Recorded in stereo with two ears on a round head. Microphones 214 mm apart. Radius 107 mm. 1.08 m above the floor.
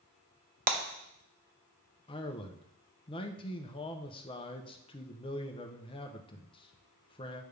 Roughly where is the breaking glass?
Right.